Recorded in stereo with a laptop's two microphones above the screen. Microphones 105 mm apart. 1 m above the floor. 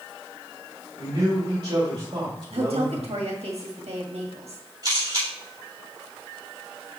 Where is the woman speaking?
70° right (ahead or behind), 1.7 m.